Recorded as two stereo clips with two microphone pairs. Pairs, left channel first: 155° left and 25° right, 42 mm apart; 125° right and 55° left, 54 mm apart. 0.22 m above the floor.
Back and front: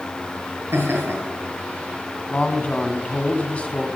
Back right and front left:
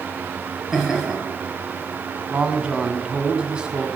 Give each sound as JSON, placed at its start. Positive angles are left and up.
{"t": 0.7, "sound": "laughter", "azimuth_deg": -20, "distance_m": 5.0}
{"t": 2.3, "sound": "a man speaking", "azimuth_deg": 115, "distance_m": 1.5}